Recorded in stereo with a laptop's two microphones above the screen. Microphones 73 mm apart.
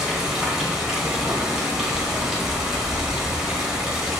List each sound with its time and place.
0.0 s running water: 5° right (ahead or behind), 0.9 m